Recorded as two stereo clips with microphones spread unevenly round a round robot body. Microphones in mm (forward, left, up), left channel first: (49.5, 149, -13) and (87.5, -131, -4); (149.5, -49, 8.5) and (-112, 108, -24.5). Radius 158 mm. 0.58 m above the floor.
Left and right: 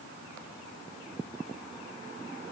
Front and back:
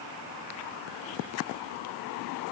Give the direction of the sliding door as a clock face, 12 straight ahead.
No sliding door in this recording.